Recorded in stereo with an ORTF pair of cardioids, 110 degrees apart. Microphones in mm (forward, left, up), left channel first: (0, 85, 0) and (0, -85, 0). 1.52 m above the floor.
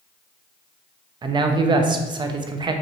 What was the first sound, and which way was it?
A man speaking, 30° right.